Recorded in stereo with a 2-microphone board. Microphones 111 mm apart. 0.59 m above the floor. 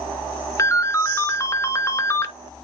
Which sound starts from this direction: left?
A ringtone, at 0.6 s.